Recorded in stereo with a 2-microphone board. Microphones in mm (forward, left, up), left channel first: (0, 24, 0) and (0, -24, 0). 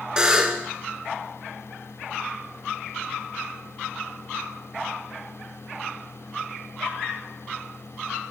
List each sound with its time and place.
0.2 s a buzzer: 20° right (ahead or behind), 0.9 m